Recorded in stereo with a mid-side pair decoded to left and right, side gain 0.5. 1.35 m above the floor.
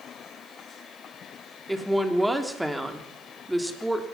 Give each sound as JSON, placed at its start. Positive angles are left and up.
{"t": 1.7, "sound": "a woman speaking", "azimuth_deg": 0, "distance_m": 3.5}